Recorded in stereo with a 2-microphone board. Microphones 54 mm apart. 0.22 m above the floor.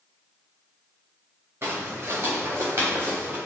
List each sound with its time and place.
1.6 s footsteps: 45° right (ahead or behind), 1.8 m; by 3.4 s 35° right (ahead or behind), 3 m